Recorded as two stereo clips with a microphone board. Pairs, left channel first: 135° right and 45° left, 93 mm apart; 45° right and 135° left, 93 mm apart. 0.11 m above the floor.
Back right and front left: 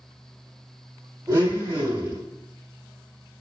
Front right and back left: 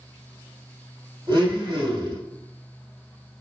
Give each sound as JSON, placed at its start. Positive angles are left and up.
{"t": 1.3, "sound": "a blender", "azimuth_deg": 100, "distance_m": 3.5}